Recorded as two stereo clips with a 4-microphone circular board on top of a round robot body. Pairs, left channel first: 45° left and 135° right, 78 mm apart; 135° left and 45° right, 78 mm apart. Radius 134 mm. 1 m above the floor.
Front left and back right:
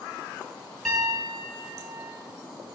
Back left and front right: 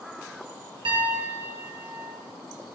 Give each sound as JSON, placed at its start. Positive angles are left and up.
{"t": 0.8, "sound": "a piano", "azimuth_deg": -40, "distance_m": 1.3}